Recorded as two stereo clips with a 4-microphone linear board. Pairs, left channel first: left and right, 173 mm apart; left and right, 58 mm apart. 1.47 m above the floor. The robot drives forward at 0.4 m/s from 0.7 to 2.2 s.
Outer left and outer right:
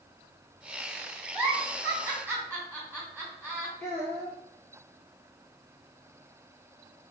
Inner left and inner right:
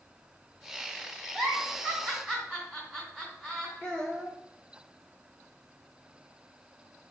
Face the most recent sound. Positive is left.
turn(degrees=-45)  # may be behind; listen again after turning